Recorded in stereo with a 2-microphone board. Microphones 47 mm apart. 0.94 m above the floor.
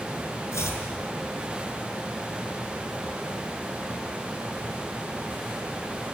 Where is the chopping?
90° left, 7.5 m.